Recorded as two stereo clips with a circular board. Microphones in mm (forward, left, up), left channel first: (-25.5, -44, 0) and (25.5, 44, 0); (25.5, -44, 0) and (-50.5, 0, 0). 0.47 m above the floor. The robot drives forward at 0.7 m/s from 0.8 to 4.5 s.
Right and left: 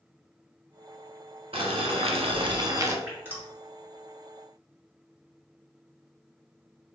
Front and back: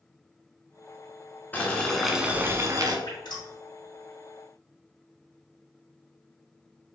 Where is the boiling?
40° left, 0.9 m; by 3.0 s 120° left, 0.7 m.